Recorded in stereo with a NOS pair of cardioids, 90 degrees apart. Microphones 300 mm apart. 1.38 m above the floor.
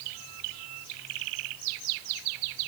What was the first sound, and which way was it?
Only background noise.